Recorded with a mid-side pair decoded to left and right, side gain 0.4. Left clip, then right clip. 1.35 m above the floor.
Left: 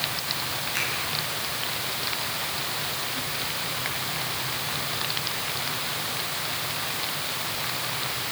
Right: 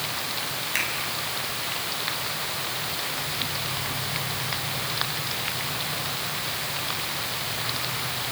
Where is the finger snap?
60° right, 9 m.